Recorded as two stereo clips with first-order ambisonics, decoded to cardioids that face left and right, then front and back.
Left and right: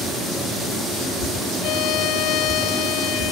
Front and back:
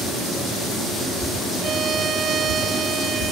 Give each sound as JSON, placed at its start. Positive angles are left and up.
{"t": 1.6, "sound": "a violin", "azimuth_deg": 115}